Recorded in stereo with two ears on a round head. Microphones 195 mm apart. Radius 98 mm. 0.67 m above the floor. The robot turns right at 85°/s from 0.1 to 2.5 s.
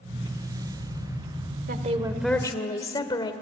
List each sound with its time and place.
1.7 s a woman speaking: 50° right, 1.9 m; by 3.3 s 20° left, 1.9 m